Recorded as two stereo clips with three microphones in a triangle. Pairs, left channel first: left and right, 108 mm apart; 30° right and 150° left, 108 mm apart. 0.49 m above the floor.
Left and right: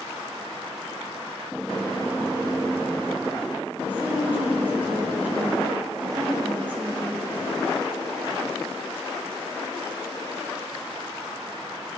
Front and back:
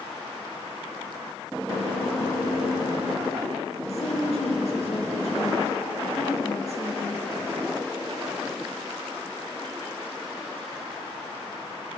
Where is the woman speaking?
15° right, 6 m.